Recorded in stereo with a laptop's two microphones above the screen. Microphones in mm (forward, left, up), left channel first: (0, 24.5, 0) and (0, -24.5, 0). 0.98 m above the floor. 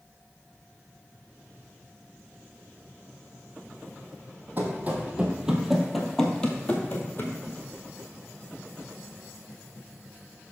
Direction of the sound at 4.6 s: 40° right (ahead or behind).